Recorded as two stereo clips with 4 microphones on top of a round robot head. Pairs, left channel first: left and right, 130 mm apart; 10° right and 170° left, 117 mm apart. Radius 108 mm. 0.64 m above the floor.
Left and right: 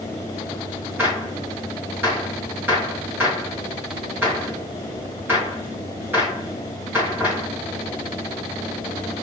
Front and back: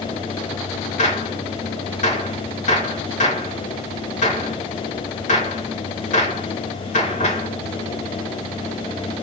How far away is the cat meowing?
No cat meowing in this recording.